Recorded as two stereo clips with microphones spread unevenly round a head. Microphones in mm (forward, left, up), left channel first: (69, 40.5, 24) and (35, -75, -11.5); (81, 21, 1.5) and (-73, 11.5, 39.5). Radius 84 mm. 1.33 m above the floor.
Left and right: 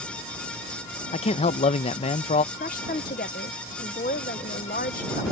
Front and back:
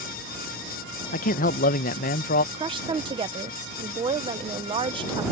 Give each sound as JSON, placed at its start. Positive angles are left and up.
{"t": 1.1, "sound": "a man speaking", "azimuth_deg": 45}
{"t": 2.5, "sound": "a woman speaking", "azimuth_deg": 120}